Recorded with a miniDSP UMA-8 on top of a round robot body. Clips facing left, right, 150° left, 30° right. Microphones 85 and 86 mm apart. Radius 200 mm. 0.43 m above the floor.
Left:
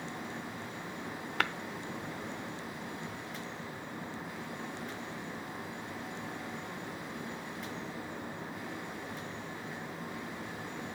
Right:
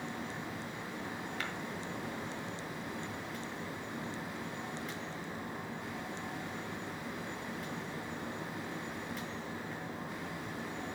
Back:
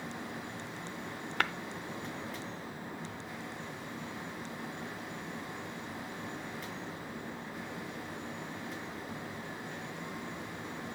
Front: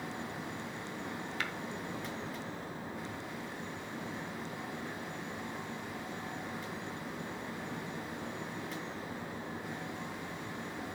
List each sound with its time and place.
1.4 s tapping: 115° left, 0.8 m